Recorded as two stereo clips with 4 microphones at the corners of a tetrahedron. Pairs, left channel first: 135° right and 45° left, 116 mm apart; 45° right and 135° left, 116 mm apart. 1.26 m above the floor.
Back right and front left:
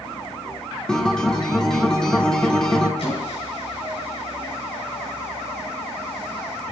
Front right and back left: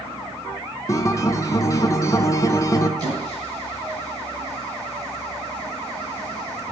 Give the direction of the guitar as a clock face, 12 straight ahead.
2 o'clock.